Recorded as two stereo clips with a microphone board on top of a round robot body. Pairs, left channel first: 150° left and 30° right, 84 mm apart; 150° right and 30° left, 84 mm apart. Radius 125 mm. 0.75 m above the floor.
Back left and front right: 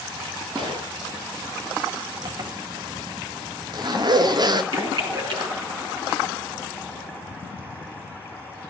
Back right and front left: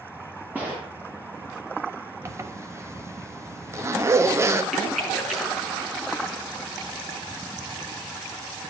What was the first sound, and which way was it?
A gunshot, 40° right.